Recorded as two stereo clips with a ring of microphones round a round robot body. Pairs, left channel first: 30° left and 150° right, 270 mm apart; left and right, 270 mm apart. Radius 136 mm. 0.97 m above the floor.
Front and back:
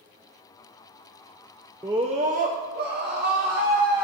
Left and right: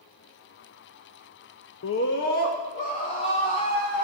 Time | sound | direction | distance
1.8 | a scream | 130° left | 0.6 m